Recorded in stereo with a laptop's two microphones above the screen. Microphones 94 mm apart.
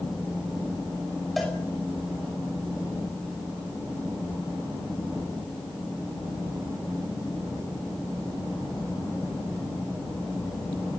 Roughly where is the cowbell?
Centre.